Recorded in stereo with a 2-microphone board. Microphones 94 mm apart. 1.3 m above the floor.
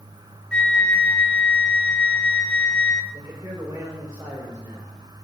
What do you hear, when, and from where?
0.5 s a flute: 10° left (ahead or behind), 0.7 m
3.1 s a man speaking: 35° right (ahead or behind), 5.5 m